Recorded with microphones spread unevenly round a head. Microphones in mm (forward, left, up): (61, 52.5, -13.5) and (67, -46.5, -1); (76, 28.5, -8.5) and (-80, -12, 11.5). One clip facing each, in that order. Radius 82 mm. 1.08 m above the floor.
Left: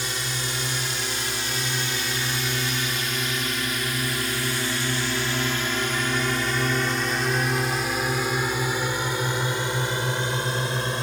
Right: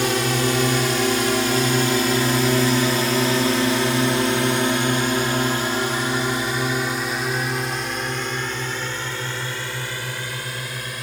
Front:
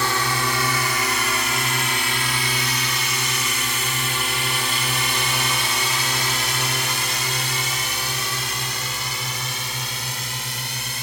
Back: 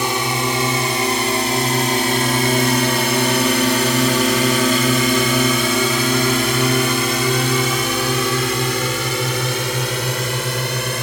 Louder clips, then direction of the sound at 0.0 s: Right 11 dB, back 4 dB; 90° right.